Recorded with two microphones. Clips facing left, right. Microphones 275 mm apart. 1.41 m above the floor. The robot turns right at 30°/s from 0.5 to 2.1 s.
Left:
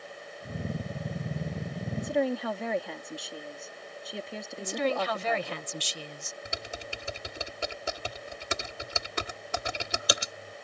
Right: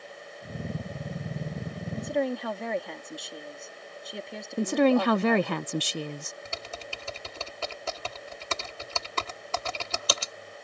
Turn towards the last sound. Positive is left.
turn(degrees=15)  # may be behind; listen again after turning